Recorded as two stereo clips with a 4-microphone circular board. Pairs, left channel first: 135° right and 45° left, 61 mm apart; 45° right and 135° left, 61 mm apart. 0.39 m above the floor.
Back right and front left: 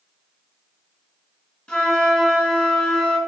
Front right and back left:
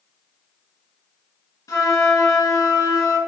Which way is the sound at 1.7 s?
60° right.